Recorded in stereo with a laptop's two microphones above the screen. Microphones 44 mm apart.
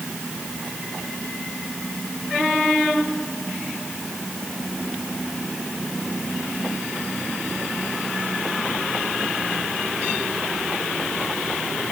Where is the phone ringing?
No phone ringing in this recording.